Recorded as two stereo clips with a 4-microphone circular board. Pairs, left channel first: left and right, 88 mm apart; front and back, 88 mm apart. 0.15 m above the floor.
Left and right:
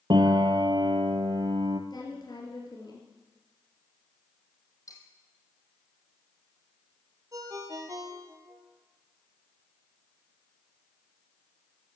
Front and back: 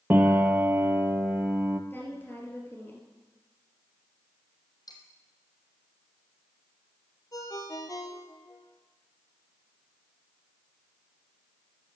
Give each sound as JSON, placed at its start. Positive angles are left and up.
{"t": 0.1, "sound": "a piano", "azimuth_deg": -115, "distance_m": 1.1}
{"t": 1.9, "sound": "a woman speaking", "azimuth_deg": 65, "distance_m": 3.0}
{"t": 4.9, "sound": "cutlery clinking", "azimuth_deg": 40, "distance_m": 3.0}
{"t": 7.3, "sound": "a ringtone", "azimuth_deg": -45, "distance_m": 2.0}